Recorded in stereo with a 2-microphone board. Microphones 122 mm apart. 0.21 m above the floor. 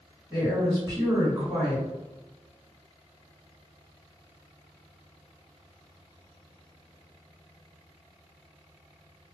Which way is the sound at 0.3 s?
15° right (ahead or behind).